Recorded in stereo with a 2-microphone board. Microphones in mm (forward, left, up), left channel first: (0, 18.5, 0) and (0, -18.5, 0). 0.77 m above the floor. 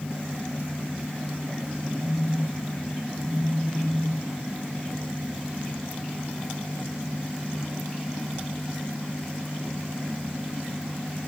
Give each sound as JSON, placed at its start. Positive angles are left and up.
{"t": 2.0, "sound": "a phone buzzing", "side_deg": 35, "distance_m": 8.5}